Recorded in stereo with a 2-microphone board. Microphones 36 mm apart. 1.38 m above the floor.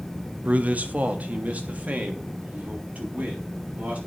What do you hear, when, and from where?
0.5 s a man speaking: 50° right (ahead or behind), 0.6 m